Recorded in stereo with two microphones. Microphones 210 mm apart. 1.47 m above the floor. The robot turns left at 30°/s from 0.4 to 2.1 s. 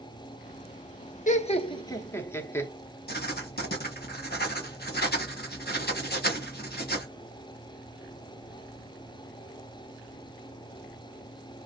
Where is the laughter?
35° left (ahead or behind), 1.0 m; by 2.7 s 10° left (ahead or behind), 1.0 m.